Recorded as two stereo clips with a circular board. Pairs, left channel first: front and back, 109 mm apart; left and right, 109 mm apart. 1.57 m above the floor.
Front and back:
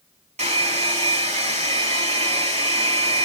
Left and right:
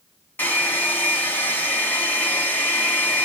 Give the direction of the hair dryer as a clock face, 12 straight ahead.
7 o'clock.